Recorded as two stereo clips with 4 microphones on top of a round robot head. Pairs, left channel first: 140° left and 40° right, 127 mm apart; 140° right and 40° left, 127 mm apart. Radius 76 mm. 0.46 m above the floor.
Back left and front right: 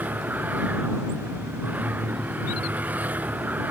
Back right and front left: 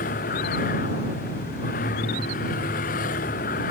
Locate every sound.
0.0 s a vehicle: 120° right